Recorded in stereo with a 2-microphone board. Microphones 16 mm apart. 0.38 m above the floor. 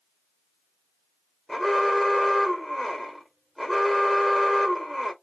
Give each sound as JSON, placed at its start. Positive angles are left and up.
{"t": 1.5, "sound": "an alarm", "side_deg": 15, "distance_m": 1.2}